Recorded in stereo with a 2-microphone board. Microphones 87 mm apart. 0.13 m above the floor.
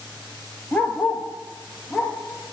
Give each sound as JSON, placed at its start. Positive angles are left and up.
{"t": 0.7, "sound": "a dog barking", "side_deg": 15, "distance_m": 0.5}